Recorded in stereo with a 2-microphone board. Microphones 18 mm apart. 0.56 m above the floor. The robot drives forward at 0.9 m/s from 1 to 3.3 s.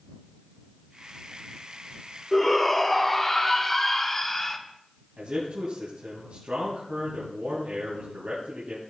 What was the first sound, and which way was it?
A shout, 15° left (ahead or behind).